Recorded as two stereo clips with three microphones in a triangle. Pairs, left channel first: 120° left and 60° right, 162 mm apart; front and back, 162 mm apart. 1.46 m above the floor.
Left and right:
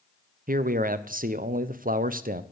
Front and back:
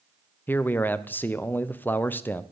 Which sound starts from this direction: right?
A man speaking, at 0.5 s.